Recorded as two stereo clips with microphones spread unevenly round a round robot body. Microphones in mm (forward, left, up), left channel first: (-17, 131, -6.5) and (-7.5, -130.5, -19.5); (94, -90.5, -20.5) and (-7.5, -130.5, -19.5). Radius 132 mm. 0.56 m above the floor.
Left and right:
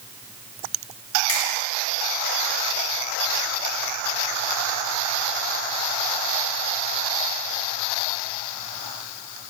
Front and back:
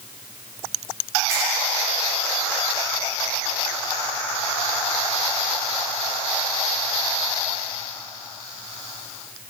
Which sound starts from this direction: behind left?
A finger snap, at 1.3 s.